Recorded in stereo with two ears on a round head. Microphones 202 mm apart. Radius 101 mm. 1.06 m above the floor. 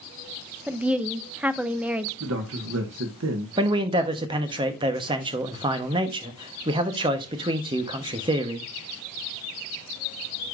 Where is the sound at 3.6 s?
20° right (ahead or behind), 1.1 m.